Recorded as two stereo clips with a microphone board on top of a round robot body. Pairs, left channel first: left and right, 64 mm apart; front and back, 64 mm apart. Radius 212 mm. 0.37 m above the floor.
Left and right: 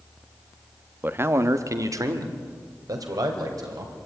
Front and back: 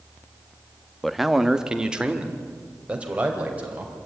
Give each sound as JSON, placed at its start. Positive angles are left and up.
{"t": 1.0, "sound": "a man speaking", "azimuth_deg": -85, "distance_m": 1.2}